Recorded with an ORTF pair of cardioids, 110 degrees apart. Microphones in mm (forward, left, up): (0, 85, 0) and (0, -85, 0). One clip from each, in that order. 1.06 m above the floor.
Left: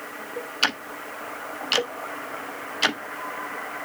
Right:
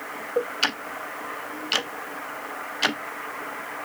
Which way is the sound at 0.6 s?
5° left.